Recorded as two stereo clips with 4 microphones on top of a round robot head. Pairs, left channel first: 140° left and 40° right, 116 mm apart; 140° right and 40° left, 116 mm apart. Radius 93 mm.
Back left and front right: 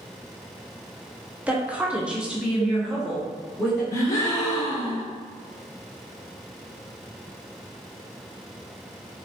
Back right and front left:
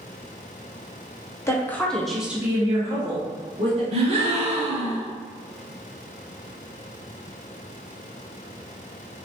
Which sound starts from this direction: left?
A gasp, at 3.9 s.